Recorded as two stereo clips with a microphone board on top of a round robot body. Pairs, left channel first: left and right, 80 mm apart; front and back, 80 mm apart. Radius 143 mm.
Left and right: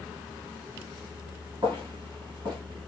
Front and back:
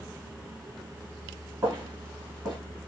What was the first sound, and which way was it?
Footsteps, 125° right.